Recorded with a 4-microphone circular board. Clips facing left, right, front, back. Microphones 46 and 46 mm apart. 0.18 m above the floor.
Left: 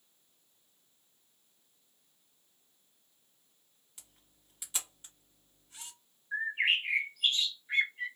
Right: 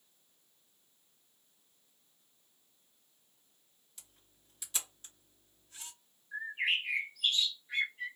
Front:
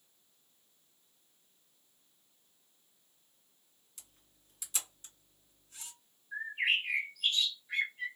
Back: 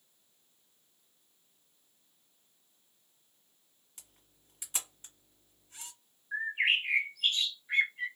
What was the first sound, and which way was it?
A camera shutter, 150° left.